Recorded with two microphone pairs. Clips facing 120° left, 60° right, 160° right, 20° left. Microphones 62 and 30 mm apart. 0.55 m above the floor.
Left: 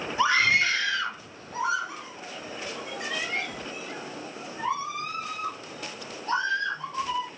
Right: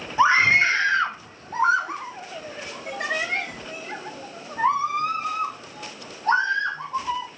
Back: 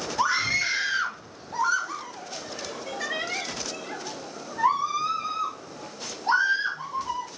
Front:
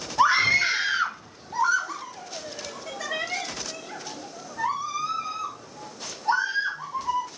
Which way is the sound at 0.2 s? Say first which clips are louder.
Right 5 dB, front 5 dB; 25° right.